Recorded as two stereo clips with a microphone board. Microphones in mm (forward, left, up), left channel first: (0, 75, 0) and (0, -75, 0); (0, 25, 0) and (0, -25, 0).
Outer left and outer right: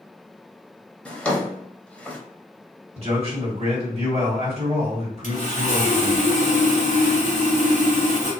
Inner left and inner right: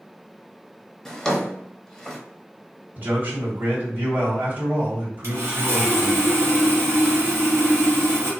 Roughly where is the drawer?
Centre.